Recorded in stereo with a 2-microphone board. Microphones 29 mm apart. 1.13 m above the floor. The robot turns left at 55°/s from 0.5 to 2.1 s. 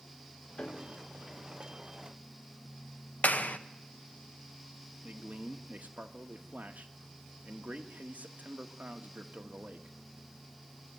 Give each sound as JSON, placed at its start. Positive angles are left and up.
{"t": 0.6, "sound": "a piano", "side_deg": 40, "distance_m": 1.3}
{"t": 3.2, "sound": "a clap", "side_deg": 65, "distance_m": 0.9}
{"t": 5.0, "sound": "a man speaking", "side_deg": -65, "distance_m": 1.5}